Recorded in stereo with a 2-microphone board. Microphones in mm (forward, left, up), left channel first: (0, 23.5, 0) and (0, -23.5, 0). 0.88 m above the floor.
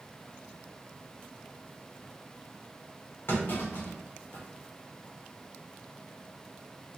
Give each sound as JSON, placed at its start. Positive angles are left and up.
{"t": 3.3, "sound": "a clunk", "side_deg": 60, "distance_m": 1.4}